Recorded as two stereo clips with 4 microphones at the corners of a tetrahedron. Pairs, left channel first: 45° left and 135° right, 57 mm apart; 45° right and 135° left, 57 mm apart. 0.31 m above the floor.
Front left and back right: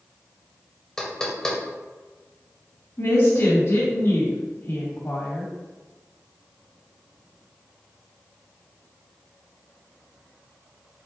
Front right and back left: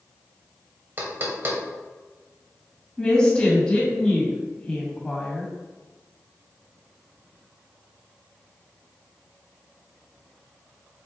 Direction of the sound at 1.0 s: 120° left.